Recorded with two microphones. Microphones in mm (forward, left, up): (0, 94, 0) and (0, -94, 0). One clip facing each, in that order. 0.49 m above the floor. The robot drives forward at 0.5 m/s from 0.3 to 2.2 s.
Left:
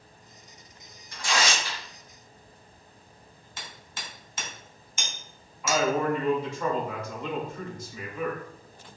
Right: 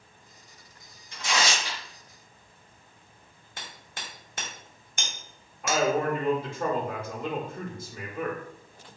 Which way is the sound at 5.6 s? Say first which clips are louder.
Even; 55° right (ahead or behind).